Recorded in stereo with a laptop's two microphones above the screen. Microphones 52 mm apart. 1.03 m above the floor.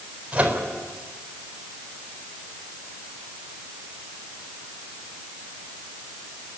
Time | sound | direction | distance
0.3 | a microwave | 25° right (ahead or behind) | 4 m